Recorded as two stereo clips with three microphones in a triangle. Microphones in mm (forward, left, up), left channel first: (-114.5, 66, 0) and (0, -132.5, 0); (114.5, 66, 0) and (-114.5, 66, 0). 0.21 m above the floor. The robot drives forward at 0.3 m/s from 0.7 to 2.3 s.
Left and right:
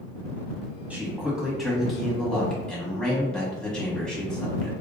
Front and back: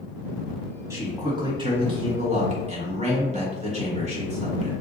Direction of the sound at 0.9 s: 130° right.